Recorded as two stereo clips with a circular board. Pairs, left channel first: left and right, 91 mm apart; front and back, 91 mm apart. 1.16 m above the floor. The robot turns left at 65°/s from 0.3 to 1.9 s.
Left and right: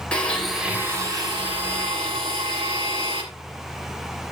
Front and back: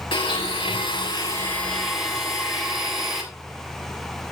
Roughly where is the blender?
Ahead.